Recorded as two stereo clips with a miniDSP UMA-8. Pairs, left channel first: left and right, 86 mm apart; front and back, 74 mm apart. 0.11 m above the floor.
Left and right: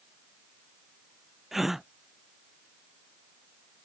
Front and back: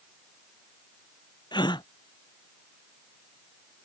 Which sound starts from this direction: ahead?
A gasp, at 1.5 s.